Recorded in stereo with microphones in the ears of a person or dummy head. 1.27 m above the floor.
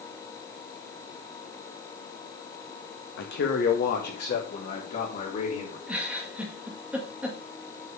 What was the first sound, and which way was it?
A man speaking, 65° left (ahead or behind).